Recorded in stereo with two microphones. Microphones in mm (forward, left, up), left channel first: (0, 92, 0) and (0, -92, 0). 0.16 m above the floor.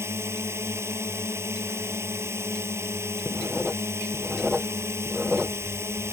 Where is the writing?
5° right (ahead or behind).